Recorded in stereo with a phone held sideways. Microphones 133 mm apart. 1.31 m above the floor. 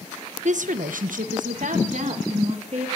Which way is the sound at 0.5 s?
60° right (ahead or behind).